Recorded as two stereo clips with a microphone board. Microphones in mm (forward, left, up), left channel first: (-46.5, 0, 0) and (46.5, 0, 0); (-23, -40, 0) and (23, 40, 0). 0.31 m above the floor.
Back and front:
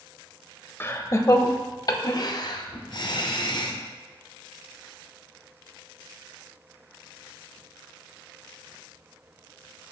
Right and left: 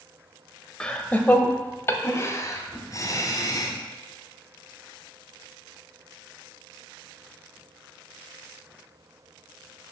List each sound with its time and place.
0.8 s laughter: 175° left, 0.9 m; by 3.8 s 160° right, 2 m